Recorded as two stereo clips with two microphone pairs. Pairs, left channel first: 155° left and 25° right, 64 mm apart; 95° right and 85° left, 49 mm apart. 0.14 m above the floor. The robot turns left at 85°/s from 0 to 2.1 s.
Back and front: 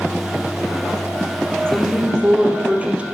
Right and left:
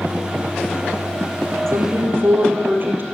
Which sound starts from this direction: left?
A woman speaking, at 1.7 s.